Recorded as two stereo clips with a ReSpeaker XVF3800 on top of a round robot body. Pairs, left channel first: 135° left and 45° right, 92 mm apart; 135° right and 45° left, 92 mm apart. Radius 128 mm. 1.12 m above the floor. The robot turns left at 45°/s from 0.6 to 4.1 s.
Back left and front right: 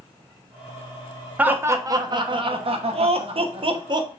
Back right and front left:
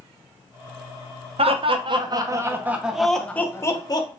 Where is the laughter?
30° left, 0.9 m; by 4.1 s 90° right, 0.9 m.